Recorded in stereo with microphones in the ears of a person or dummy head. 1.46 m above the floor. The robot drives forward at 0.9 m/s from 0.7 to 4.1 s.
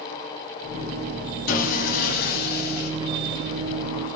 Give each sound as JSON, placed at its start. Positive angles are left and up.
{"t": 1.5, "sound": "sawing", "side_deg": 50, "distance_m": 7.5}